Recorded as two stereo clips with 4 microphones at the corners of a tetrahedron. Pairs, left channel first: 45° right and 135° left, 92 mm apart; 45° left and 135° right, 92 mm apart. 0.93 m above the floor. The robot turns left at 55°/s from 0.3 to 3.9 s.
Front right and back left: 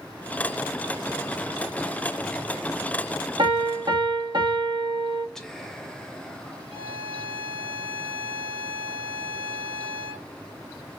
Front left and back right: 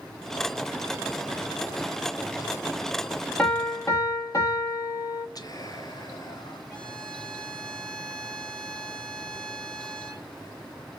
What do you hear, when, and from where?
3.4 s a piano: 125° left, 1.1 m; by 5.2 s 95° left, 1.1 m
5.3 s whispering: 40° left, 0.6 m
6.7 s a violin: 125° left, 2.5 m